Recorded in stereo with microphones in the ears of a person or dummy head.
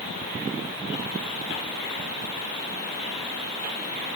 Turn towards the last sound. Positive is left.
No sound to turn to.